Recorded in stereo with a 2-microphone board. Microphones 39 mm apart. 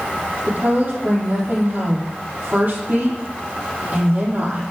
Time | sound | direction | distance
0.5 | a woman speaking | 40° right (ahead or behind) | 5.5 m